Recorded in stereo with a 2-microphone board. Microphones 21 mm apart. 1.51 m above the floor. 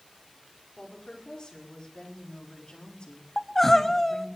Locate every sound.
0.8 s a woman speaking: 40° left (ahead or behind), 5 m; by 4.4 s 55° left (ahead or behind), 2.5 m
3.4 s crying: 15° left (ahead or behind), 0.9 m